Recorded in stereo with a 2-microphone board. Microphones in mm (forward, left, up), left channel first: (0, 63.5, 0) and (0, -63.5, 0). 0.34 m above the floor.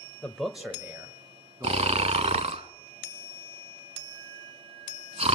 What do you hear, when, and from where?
0.2 s a man speaking: 10° left (ahead or behind), 1.0 m; by 2.5 s 30° right (ahead or behind), 4 m
1.6 s snoring: 60° right (ahead or behind), 0.6 m